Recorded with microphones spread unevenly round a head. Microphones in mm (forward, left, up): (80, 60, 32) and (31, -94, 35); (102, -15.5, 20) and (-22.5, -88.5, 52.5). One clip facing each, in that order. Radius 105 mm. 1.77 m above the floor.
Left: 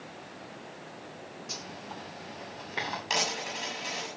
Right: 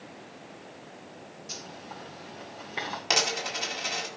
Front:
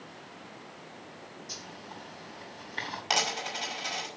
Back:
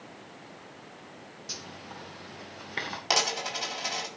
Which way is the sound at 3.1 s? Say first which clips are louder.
Right 5 dB, back 2 dB; 105° right.